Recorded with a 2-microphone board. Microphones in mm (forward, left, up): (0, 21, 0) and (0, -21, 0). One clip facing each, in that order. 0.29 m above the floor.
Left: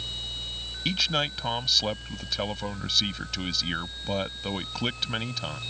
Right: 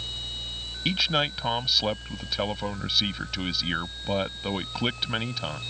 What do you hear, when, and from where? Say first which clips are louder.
0.8 s a man speaking: right 2 dB; 10° right (ahead or behind)